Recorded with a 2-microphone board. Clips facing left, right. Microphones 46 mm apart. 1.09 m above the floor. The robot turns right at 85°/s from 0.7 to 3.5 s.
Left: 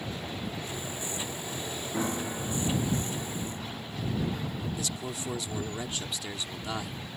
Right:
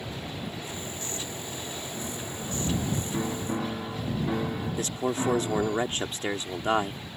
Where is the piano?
130° left; by 5.8 s 95° right.